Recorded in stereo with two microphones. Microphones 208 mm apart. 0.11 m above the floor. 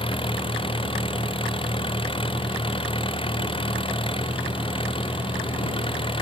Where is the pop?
No pop in this recording.